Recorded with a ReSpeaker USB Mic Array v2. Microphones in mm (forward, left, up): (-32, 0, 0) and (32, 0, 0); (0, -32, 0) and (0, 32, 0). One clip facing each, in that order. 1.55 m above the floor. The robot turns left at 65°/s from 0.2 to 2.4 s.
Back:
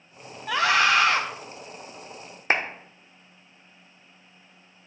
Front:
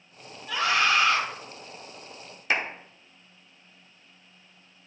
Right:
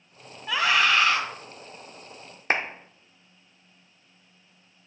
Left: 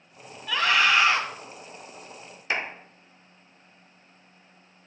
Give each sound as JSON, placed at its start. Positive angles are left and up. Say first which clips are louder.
{"t": 0.5, "sound": "a scream", "louder": "back 3 dB, even", "azimuth_deg": -160, "distance_m": 1.7}
{"t": 2.5, "sound": "a clap", "louder": "back 3 dB, right 3 dB", "azimuth_deg": -130, "distance_m": 1.0}